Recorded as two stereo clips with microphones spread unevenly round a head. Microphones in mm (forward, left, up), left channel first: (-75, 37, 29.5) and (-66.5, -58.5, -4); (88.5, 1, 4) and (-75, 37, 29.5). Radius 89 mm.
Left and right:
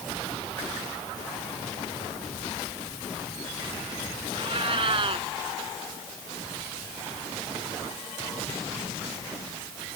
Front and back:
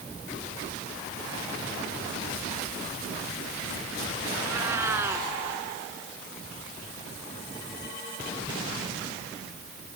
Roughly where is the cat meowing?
Behind right.